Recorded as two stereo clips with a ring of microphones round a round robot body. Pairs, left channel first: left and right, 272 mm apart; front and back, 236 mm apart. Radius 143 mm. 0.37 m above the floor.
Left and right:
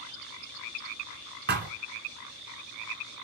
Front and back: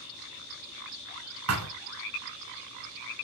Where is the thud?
145° right, 2 m.